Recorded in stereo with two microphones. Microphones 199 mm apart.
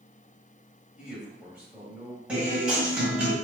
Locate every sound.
1.0 s a man speaking: 5° right (ahead or behind), 1.9 m
2.3 s a guitar: 5° right (ahead or behind), 1.7 m